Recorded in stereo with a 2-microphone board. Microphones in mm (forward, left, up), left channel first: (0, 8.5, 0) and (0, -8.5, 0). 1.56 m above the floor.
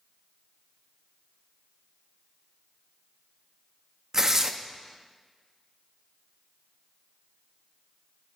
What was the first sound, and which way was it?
Tearing paper, 30° right (ahead or behind).